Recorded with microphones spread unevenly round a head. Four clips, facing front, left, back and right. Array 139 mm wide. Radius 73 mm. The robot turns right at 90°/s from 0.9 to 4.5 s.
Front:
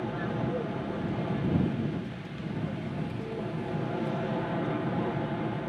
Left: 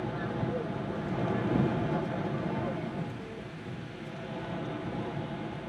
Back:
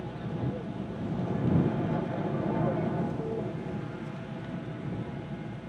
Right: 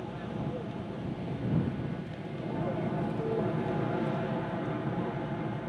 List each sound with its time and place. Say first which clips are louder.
0.0 s an aircraft: left 3 dB, front 4 dB; 30° left; by 5.7 s 5° right